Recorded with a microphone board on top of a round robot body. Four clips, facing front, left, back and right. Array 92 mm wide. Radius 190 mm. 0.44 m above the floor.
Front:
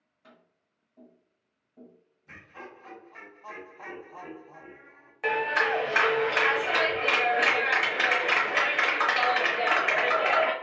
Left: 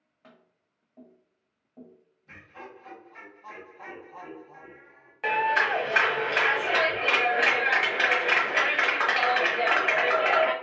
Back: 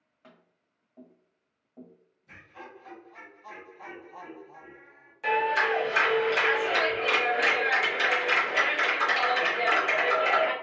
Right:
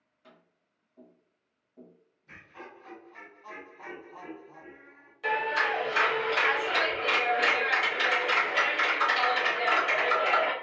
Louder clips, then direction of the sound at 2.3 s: Left 2 dB, front 1 dB; 15° left.